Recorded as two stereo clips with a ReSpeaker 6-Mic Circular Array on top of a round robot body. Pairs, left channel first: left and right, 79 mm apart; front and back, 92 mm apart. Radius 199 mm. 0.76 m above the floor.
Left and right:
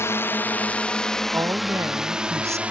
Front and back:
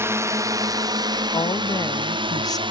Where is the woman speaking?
40° right.